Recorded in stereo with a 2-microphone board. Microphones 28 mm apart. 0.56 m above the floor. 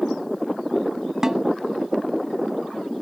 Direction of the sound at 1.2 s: 25° right (ahead or behind).